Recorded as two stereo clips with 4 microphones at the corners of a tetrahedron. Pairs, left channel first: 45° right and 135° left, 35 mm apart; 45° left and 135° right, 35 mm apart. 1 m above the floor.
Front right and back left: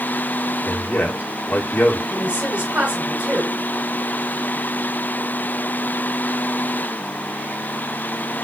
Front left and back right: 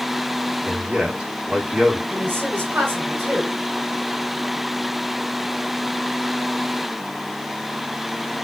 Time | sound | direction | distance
0.7 | a man speaking | 75° right | 2.5 m
2.1 | a woman speaking | 160° right | 7 m